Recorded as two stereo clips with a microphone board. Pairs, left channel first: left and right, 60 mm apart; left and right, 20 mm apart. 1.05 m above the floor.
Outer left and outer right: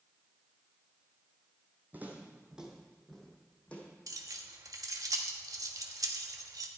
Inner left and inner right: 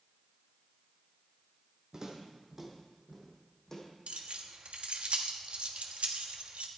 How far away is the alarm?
I don't hear an alarm.